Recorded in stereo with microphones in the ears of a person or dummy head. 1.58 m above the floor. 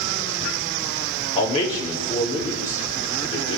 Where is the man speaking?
30° left (ahead or behind), 5.5 m.